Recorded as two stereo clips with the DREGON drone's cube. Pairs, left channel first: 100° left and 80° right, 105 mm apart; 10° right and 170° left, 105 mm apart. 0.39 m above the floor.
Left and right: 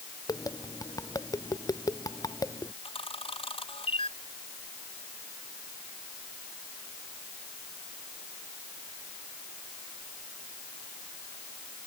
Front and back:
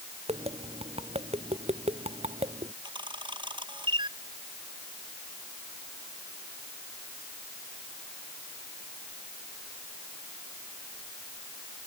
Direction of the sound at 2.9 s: 130° left.